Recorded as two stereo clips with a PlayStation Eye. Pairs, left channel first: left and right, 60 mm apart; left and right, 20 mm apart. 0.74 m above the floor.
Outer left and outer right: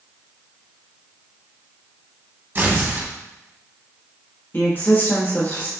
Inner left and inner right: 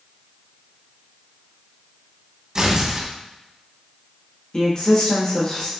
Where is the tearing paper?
35° right (ahead or behind), 0.7 m.